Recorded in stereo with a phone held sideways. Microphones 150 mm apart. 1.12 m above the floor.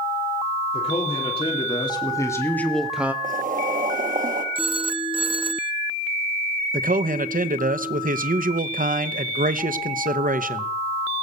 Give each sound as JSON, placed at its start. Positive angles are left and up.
{"t": 0.7, "sound": "a man speaking", "side_deg": 45, "distance_m": 3.0}
{"t": 3.2, "sound": "boiling", "side_deg": -65, "distance_m": 1.4}
{"t": 4.5, "sound": "a phone ringing", "side_deg": -35, "distance_m": 0.7}
{"t": 6.7, "sound": "a man speaking", "side_deg": -70, "distance_m": 0.7}